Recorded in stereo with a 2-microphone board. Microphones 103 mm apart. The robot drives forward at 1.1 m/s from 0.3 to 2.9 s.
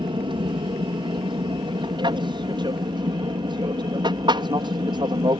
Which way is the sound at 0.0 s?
55° right (ahead or behind).